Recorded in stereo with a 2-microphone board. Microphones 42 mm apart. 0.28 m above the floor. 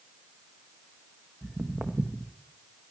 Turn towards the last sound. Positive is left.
turn(degrees=-50)  # may be behind; listen again after turning